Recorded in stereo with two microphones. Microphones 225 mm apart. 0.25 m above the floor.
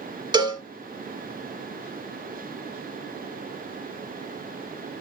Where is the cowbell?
20° right (ahead or behind), 1.0 m.